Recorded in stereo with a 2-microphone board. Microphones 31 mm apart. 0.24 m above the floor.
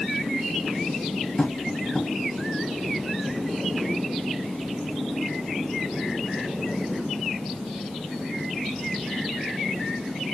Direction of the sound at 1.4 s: 20° left (ahead or behind).